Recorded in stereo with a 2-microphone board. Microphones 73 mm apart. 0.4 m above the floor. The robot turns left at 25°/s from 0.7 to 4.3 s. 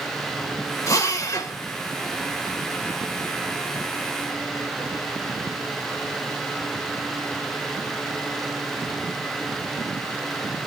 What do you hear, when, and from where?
0.9 s a drill: 40° left (ahead or behind), 1.9 m